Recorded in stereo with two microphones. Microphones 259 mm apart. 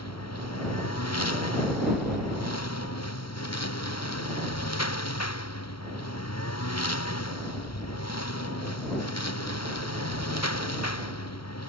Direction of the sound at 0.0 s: 75° left (ahead or behind).